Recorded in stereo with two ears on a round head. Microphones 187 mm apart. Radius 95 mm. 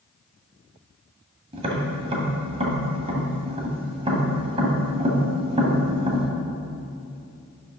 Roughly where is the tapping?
Right.